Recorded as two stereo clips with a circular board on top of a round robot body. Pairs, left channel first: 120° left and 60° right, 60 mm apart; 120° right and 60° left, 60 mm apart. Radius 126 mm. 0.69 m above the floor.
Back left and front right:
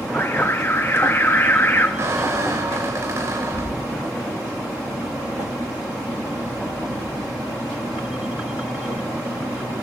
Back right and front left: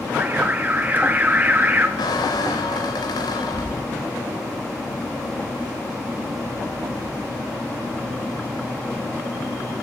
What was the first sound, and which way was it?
An alarm, 100° left.